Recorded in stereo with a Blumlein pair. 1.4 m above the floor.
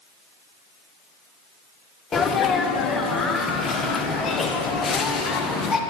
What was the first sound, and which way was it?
A sneeze, 20° left.